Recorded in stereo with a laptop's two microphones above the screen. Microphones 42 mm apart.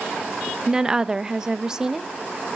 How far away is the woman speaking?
About 0.8 m.